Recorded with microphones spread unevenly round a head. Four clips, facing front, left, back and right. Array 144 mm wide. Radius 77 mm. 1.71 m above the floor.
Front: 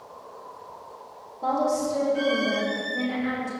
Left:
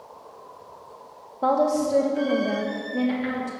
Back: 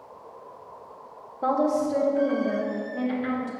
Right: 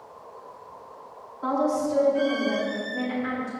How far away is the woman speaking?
About 1.9 m.